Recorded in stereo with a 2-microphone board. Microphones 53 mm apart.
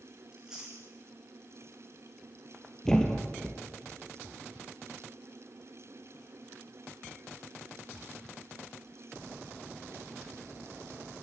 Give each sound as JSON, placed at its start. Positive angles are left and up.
{"t": 0.3, "sound": "chewing", "side_deg": -15, "distance_m": 4.0}
{"t": 2.9, "sound": "a thud", "side_deg": 10, "distance_m": 2.5}